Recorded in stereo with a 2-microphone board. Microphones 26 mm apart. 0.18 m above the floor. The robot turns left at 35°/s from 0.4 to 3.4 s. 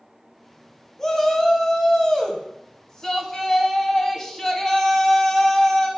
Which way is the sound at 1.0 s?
15° left (ahead or behind).